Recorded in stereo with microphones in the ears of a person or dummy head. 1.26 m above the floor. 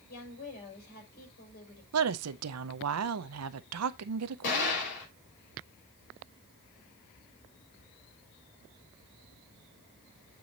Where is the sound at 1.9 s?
85° right, 0.7 m.